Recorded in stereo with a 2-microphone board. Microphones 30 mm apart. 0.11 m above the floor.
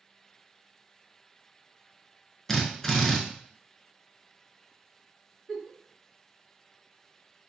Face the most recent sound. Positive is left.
turn(degrees=-10)  # may be behind; listen again after turning